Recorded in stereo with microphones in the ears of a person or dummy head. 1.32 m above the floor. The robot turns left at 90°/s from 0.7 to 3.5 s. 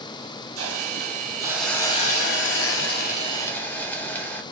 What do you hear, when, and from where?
0.6 s a hiss: 100° right, 1.0 m; by 4.4 s 10° left, 1.0 m